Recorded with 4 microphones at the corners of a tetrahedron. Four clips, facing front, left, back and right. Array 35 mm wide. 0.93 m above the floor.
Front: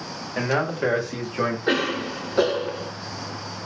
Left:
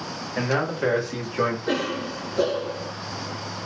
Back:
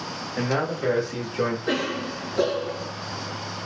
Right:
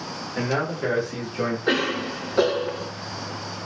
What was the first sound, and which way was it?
A man speaking, 15° left.